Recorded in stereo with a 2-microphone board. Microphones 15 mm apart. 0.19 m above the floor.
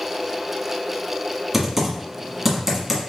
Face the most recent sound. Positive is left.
turn(degrees=-10)  # may be behind; listen again after turning